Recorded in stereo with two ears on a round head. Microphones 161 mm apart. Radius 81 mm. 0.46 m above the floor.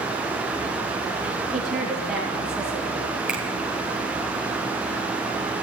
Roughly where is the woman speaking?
Centre.